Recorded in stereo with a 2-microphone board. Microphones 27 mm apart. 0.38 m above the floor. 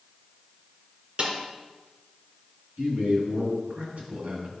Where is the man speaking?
75° right (ahead or behind), 3 m.